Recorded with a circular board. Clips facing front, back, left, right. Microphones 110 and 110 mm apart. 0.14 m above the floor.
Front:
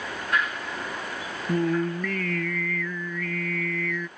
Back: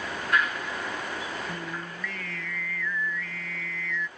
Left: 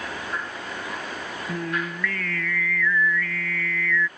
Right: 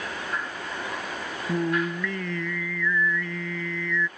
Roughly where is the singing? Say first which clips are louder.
Front 12 dB, right 4 dB; ahead.